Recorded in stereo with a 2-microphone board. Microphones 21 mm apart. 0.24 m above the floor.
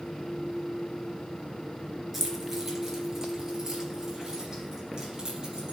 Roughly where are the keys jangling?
Centre.